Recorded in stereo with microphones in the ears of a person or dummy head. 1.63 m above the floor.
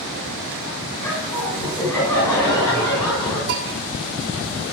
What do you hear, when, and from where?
1.0 s laughter: 15° left (ahead or behind), 6.5 m
3.5 s a bell: 50° right (ahead or behind), 2.5 m